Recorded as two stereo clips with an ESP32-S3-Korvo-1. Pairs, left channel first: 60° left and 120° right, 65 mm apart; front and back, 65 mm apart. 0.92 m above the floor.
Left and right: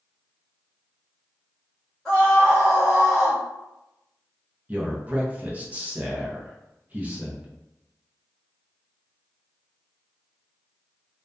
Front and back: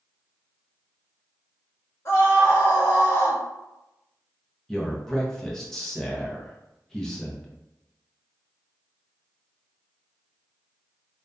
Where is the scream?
15° right, 1.2 m.